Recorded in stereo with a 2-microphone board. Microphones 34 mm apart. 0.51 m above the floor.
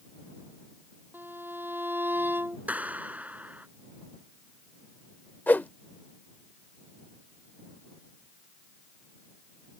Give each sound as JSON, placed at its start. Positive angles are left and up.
{"t": 1.1, "sound": "a violin", "side_deg": -80}
{"t": 2.7, "sound": "a clap", "side_deg": -45}
{"t": 5.5, "sound": "a whoosh", "side_deg": 60}